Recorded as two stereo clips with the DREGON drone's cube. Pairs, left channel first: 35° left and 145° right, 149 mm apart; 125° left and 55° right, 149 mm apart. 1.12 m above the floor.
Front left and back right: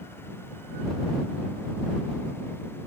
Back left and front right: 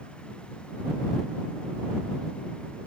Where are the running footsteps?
No running footsteps in this recording.